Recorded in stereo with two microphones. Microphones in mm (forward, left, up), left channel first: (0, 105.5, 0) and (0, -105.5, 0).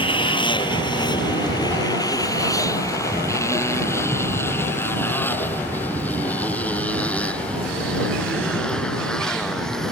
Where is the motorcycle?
25° left (ahead or behind); by 9.9 s 5° left (ahead or behind).